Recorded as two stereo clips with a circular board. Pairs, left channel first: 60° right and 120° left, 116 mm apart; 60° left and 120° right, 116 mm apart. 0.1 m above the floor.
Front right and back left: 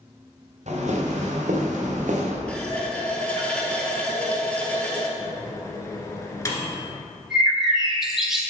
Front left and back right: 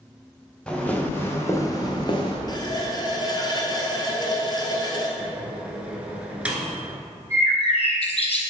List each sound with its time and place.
0.7 s footsteps: 140° left, 2 m; by 2.4 s 105° left, 1.8 m
2.5 s a running tap: 15° left, 1.2 m
5.2 s a microwave: 55° right, 1.2 m
7.3 s a bird: 35° left, 1.2 m